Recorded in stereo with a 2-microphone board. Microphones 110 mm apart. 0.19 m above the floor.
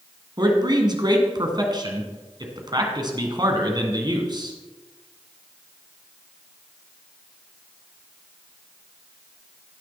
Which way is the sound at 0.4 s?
40° right (ahead or behind).